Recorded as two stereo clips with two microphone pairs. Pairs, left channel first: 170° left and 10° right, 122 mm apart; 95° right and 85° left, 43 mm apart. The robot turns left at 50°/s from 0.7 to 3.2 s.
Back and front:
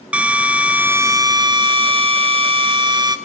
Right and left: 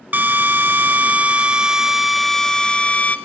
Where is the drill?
65° left, 0.8 m; by 3.2 s 55° right, 0.8 m.